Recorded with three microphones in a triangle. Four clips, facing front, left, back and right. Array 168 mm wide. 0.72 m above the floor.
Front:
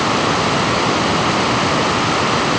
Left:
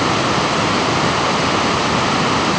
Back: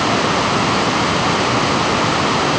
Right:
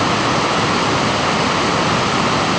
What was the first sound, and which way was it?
Only background noise.